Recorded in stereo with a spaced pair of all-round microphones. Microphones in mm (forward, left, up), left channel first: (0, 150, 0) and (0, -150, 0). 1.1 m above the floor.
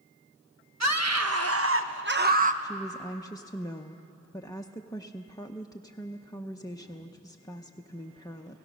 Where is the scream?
65° right (ahead or behind), 1.5 m; by 2.5 s 25° right (ahead or behind), 1.0 m.